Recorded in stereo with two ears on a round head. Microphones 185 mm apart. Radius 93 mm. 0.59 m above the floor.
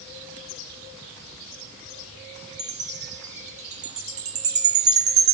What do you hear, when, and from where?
2.6 s a chime: 35° right (ahead or behind), 0.6 m